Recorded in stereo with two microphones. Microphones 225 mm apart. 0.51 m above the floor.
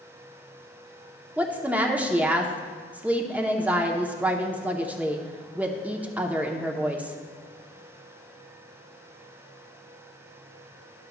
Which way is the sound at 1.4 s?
5° right (ahead or behind).